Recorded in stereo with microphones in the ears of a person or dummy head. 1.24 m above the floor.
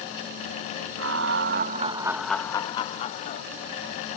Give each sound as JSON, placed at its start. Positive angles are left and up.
{"t": 1.0, "sound": "laughter", "side_deg": -75}